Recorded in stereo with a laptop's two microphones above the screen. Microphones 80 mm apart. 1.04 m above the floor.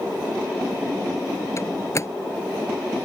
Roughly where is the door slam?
Left.